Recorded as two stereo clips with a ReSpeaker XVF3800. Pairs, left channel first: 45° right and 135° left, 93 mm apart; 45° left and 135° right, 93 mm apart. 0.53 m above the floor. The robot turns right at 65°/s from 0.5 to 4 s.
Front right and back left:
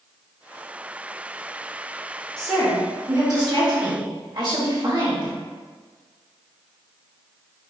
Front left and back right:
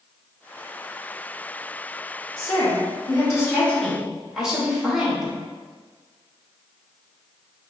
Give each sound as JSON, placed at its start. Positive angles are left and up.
{"t": 2.4, "sound": "a woman speaking", "azimuth_deg": 35, "distance_m": 1.8}